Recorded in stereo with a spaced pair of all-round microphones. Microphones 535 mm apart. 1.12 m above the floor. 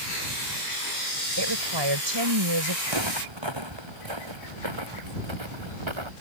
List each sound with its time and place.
1.4 s a woman speaking: 50° right (ahead or behind)
2.9 s footsteps: 50° right (ahead or behind); by 6.1 s 60° right (ahead or behind)